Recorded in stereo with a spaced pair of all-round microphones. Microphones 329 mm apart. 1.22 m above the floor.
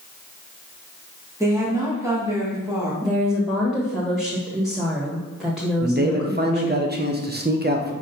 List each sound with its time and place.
1.4 s a woman speaking: 10° right (ahead or behind), 1.8 m
3.0 s a woman speaking: centre (ahead or behind), 1.3 m
5.8 s a man speaking: 30° right (ahead or behind), 0.9 m